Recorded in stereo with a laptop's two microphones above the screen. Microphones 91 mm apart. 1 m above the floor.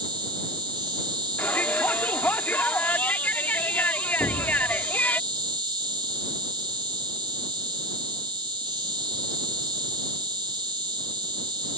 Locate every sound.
0.0 s an insect: 60° right (ahead or behind)
1.4 s a shout: 20° left (ahead or behind)
4.2 s an explosion: 40° left (ahead or behind)